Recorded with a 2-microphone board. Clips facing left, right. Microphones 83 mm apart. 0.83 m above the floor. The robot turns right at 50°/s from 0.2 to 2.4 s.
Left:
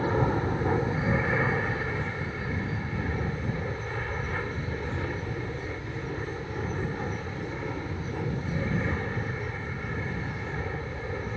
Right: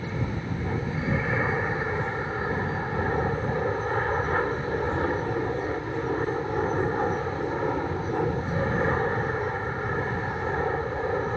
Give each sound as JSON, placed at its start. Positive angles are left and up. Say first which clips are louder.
{"t": 0.0, "sound": "an aircraft", "louder": "left 6 dB", "azimuth_deg": 125}